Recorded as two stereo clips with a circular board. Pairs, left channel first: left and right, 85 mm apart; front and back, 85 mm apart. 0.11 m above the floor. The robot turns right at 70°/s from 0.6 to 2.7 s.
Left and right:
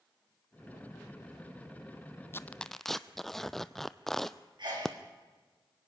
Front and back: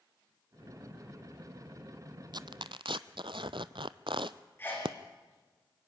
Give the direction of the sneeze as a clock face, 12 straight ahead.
2 o'clock.